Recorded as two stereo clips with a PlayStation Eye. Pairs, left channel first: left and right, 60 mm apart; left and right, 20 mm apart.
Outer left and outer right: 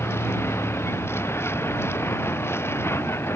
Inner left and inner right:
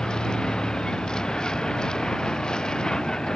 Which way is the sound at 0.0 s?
45° left (ahead or behind).